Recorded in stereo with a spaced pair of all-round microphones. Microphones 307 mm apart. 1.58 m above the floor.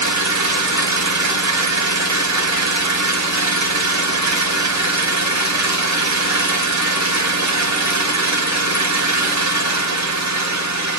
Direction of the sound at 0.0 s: 60° right (ahead or behind).